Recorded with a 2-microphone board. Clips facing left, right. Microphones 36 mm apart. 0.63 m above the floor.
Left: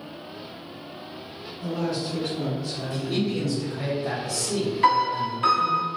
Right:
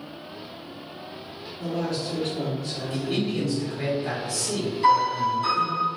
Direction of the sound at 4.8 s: 45° left (ahead or behind).